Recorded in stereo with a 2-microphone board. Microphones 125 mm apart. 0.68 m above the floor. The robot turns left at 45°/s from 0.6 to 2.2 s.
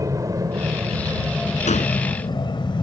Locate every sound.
0.0 s an aircraft: 25° right (ahead or behind); by 2.8 s 35° left (ahead or behind)
1.7 s a gunshot: 65° left (ahead or behind); by 1.9 s 80° left